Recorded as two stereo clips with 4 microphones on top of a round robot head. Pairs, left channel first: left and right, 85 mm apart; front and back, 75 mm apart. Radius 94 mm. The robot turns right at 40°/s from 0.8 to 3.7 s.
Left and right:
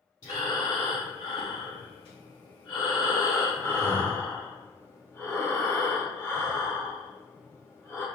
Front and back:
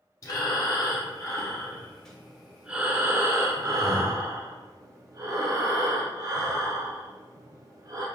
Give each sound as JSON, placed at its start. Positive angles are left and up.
{"t": 0.2, "sound": "breathing", "azimuth_deg": 35, "distance_m": 0.6}